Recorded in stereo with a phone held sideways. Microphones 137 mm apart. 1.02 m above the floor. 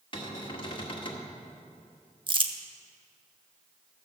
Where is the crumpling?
35° right (ahead or behind), 0.7 m.